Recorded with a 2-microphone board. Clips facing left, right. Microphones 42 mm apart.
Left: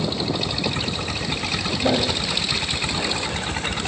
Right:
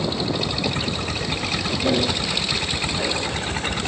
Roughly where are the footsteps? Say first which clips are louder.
Even; centre.